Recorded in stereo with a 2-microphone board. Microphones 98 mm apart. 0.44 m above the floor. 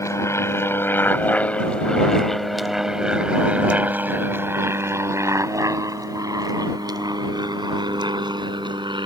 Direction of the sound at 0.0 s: 30° left (ahead or behind).